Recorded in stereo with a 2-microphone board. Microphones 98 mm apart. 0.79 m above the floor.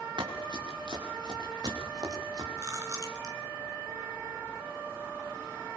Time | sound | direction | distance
0.2 | running footsteps | 55° right (ahead or behind) | 4.5 m
2.6 | chewing | 35° right (ahead or behind) | 3.5 m